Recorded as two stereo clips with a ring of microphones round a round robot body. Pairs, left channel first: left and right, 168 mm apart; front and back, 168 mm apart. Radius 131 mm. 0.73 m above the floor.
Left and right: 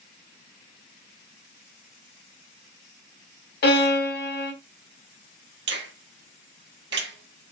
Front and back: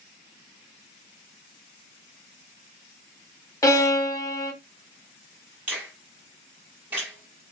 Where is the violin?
70° left, 1.7 m.